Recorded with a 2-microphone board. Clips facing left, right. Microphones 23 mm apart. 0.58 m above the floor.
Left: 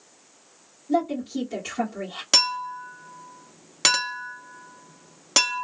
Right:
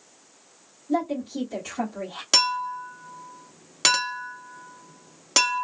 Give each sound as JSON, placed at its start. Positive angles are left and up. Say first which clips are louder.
{"t": 0.9, "sound": "a woman speaking", "louder": "left 2 dB", "side_deg": 20, "distance_m": 2.0}
{"t": 2.3, "sound": "a clink", "louder": "even", "side_deg": 5, "distance_m": 0.6}